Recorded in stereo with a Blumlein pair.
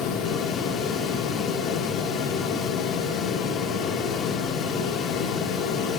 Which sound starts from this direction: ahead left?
A fan, at 0.0 s.